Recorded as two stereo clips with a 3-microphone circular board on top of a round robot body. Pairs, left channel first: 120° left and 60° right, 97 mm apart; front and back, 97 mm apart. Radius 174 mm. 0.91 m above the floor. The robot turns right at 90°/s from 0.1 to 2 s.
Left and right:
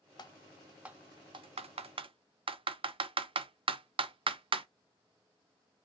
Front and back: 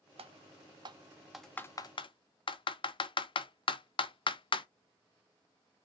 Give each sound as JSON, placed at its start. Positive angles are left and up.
{"t": 0.2, "sound": "typing on a keyboard", "azimuth_deg": 165, "distance_m": 0.7}